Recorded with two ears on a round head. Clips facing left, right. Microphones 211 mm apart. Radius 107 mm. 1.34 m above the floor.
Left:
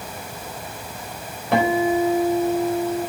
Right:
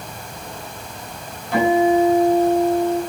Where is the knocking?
No knocking in this recording.